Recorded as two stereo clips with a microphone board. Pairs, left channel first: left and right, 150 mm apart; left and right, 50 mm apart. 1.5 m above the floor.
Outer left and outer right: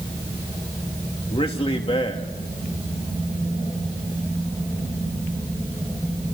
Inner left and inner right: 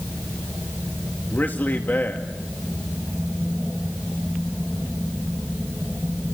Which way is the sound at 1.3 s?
40° left (ahead or behind).